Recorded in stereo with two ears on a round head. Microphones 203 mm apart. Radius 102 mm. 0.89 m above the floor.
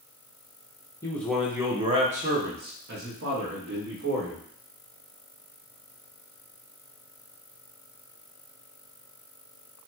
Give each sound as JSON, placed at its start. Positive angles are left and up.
{"t": 1.0, "sound": "a man speaking", "side_deg": 15, "distance_m": 0.7}